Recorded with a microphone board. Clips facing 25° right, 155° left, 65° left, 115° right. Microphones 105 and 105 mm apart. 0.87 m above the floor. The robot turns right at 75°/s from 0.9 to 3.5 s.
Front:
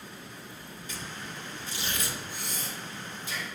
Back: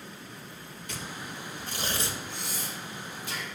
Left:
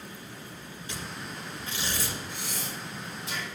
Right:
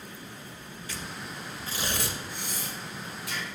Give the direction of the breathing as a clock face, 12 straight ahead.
10 o'clock.